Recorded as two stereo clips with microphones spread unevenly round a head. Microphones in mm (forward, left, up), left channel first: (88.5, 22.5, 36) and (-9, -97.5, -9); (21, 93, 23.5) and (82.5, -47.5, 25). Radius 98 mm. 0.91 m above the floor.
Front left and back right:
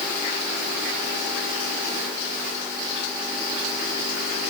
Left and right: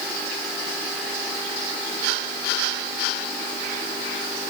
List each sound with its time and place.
Only background noise.